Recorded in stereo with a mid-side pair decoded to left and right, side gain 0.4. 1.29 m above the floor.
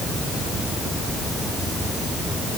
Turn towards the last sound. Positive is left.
No sound to turn to.